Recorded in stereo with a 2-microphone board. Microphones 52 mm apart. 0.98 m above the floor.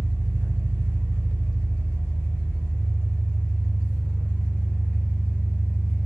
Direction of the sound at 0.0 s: 25° left (ahead or behind).